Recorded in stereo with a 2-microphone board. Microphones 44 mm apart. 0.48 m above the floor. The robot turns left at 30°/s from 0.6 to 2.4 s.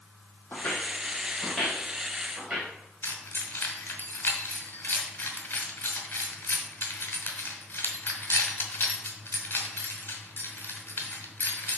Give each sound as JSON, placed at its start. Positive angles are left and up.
{"t": 0.5, "sound": "footsteps", "side_deg": 50, "distance_m": 1.1}
{"t": 3.0, "sound": "keys jangling", "side_deg": 55, "distance_m": 1.8}